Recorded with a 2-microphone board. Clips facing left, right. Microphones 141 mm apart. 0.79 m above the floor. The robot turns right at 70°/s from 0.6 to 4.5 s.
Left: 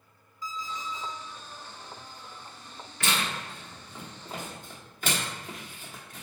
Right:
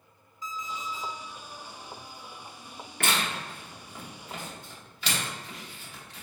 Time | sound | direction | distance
0.4 | an alarm clock | 160° right | 1.3 m
3.0 | tearing paper | 55° right (ahead or behind) | 0.9 m